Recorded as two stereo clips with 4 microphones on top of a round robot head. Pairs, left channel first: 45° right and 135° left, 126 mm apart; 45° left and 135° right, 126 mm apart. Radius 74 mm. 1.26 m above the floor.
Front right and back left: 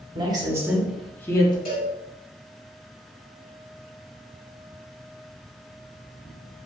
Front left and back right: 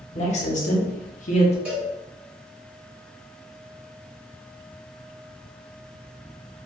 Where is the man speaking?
85° left, 1.1 m; by 1.6 s 10° left, 0.9 m.